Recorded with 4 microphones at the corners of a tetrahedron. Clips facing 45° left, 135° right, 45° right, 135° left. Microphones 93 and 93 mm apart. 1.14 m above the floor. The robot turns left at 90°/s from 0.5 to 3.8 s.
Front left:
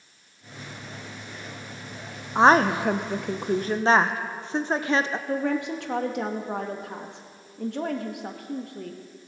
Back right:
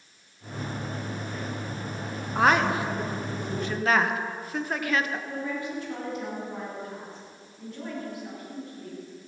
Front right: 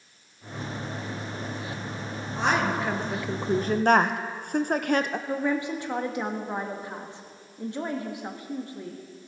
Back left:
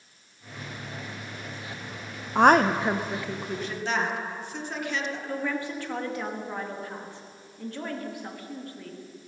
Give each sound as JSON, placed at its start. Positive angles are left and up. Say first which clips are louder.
{"t": 2.4, "sound": "a woman speaking", "louder": "front left 4 dB, back left 7 dB", "azimuth_deg": 115, "distance_m": 0.6}
{"t": 5.3, "sound": "a woman speaking", "louder": "front left 6 dB, front right 2 dB", "azimuth_deg": 25, "distance_m": 1.4}